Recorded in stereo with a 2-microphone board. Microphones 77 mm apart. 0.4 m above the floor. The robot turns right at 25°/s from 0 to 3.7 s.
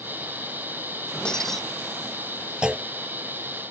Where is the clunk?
10° right (ahead or behind); by 2.9 s 15° right (ahead or behind).